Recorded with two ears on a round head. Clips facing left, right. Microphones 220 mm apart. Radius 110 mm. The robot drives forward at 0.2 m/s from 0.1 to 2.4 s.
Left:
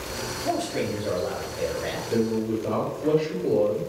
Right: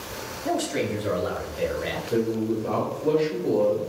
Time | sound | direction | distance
0.5 | a man speaking | 25° right (ahead or behind) | 0.7 m
2.1 | a man speaking | 25° left (ahead or behind) | 1.6 m